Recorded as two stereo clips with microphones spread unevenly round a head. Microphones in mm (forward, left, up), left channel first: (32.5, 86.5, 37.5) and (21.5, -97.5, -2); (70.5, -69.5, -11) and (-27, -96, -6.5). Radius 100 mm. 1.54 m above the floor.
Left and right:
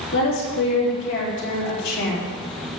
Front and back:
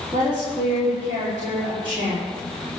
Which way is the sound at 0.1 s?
125° left.